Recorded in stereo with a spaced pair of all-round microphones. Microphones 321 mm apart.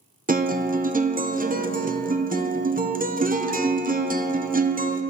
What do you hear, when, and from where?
0.3 s a guitar: 25° right (ahead or behind), 0.6 m